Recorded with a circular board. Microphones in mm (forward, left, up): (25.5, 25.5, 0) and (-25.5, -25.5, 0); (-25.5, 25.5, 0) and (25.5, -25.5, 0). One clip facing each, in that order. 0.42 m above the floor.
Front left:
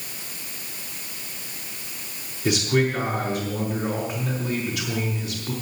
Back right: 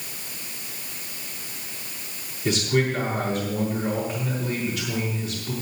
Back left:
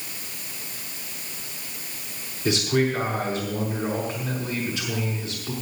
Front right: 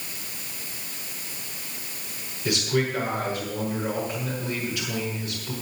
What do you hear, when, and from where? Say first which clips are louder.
2.5 s a man speaking: front left 1 dB, back left 3 dB; 70° left, 6 m